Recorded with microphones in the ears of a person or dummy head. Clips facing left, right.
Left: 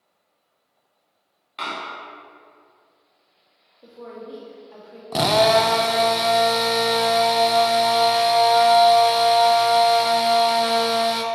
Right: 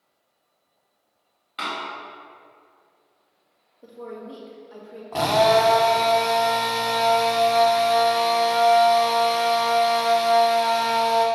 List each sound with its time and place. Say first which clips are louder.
1.6 s a door slam: even; 5° right (ahead or behind), 1.8 m
3.8 s a woman speaking: right 1 dB; centre (ahead or behind), 2 m
5.1 s a drill: left 1 dB; 40° left (ahead or behind), 0.8 m